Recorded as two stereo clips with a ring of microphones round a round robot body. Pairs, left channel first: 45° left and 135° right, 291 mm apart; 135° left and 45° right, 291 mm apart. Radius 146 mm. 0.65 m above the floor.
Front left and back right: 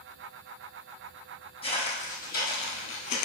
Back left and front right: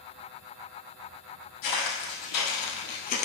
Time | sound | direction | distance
1.6 | footsteps | 115° left | 1.8 m